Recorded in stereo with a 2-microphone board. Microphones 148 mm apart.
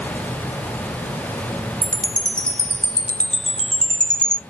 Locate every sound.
1.8 s a chime: 5° left (ahead or behind), 0.7 m